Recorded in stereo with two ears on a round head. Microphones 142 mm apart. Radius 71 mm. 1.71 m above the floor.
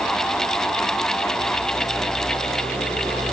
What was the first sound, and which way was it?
Only background noise.